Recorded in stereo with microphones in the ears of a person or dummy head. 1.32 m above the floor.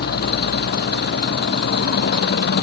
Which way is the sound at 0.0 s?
50° left (ahead or behind).